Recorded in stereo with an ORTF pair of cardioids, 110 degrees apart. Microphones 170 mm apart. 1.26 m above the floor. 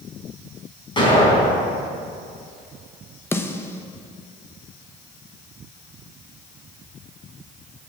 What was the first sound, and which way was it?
An explosion, 30° left.